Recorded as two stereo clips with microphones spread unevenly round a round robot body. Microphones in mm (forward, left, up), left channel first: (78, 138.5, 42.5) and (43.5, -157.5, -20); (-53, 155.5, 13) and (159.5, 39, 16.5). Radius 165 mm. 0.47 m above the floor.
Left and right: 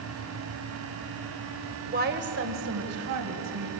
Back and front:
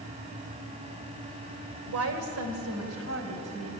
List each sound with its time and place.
1.9 s a woman speaking: 45° right, 2 m; by 3.7 s 85° right, 3.5 m